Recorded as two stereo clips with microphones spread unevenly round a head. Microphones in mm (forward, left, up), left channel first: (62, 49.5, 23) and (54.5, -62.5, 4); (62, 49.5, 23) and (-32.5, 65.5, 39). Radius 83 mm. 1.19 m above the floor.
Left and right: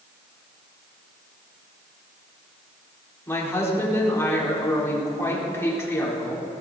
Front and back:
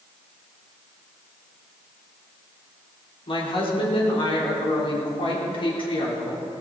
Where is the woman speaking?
20° left, 4.5 m.